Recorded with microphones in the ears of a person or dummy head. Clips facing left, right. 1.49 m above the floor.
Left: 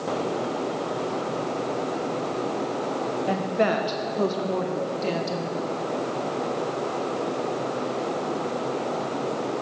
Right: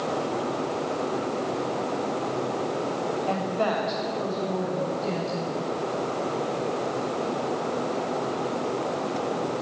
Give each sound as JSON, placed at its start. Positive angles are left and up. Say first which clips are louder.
{"t": 3.3, "sound": "a woman speaking", "louder": "left 5 dB", "side_deg": 20, "distance_m": 0.8}